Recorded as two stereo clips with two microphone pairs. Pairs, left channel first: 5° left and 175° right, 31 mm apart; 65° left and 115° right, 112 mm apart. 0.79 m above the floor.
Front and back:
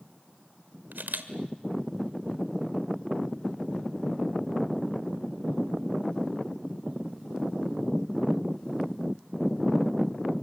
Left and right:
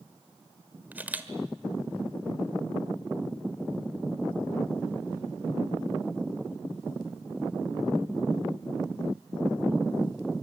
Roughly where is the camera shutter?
Behind.